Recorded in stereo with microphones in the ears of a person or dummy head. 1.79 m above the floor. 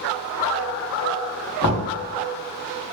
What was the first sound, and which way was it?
Knocking, 60° left (ahead or behind).